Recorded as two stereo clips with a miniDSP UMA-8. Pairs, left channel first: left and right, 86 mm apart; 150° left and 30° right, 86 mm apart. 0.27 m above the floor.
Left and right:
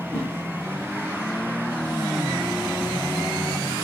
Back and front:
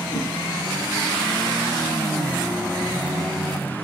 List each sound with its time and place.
0.1 s a whoosh: 155° left, 6.5 m